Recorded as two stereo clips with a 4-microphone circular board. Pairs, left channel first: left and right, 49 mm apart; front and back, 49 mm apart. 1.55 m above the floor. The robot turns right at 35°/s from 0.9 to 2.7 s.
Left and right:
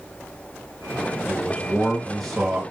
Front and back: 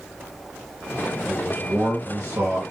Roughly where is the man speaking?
Behind left.